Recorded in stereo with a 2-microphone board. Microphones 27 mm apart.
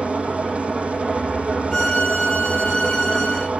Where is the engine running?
55° right (ahead or behind), 5.5 m.